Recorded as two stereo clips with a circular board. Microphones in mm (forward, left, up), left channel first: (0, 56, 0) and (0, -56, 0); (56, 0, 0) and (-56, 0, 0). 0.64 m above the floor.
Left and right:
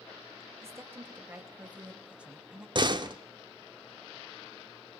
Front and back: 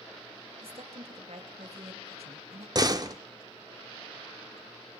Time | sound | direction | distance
0.6 | a woman speaking | 155° right | 2 m
2.8 | a door slam | 130° right | 1.3 m